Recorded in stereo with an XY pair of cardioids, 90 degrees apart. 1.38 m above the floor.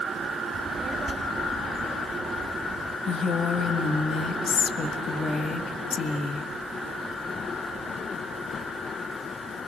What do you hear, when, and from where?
0.5 s a child speaking: 50° right, 4 m
3.1 s a woman speaking: 55° left, 1.6 m